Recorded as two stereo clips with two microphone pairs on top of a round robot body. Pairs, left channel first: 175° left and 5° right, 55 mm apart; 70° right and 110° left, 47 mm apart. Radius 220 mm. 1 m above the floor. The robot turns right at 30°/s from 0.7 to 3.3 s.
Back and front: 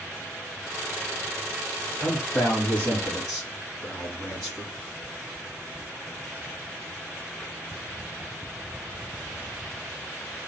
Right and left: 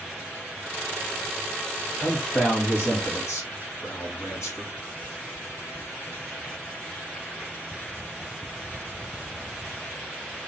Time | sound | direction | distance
2.0 | a man speaking | 135° right | 1.8 m